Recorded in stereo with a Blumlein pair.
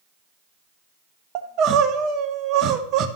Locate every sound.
1.4 s crying: 35° right, 0.7 m